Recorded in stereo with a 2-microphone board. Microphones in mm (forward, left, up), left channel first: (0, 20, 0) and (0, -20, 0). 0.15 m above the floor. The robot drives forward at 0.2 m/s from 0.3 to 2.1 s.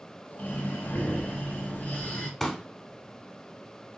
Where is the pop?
5° left (ahead or behind), 0.5 m.